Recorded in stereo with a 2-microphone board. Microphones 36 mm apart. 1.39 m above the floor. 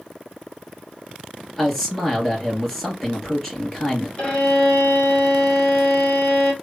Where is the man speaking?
15° left (ahead or behind), 2.0 m.